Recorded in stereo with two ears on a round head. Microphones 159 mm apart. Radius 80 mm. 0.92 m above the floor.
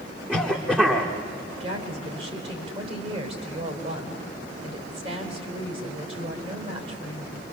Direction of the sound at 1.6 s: 35° right (ahead or behind).